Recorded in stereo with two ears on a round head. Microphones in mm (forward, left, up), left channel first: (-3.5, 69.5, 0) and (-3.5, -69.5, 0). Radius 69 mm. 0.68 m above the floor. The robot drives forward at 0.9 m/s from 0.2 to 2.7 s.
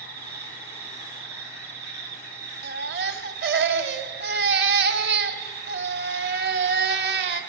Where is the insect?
75° right (ahead or behind), 5 m; by 7.5 s 80° right, 5 m.